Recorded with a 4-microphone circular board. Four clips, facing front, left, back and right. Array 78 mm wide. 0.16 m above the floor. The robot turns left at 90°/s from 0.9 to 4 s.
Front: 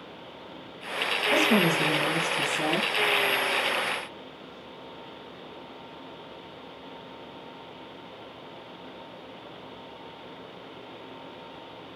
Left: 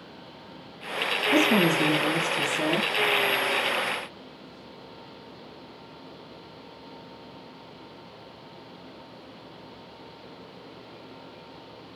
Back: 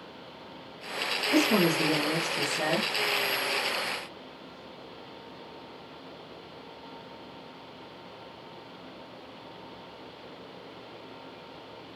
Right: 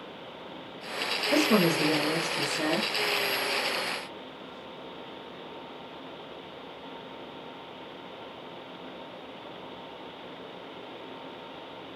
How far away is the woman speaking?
About 2.5 m.